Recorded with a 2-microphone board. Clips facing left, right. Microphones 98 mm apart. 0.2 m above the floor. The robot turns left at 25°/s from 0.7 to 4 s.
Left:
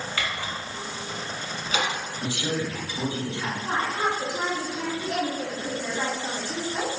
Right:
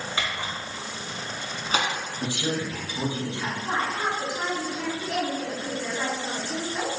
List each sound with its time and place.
0.2 s a camera shutter: 20° right (ahead or behind), 1.0 m; by 1.9 s 45° right (ahead or behind), 1.0 m
2.2 s a woman speaking: 20° right (ahead or behind), 1.3 m; by 3.5 s 15° right (ahead or behind), 1.3 m
3.6 s a woman speaking: 10° left (ahead or behind), 1.0 m; by 7.0 s 15° left (ahead or behind), 1.0 m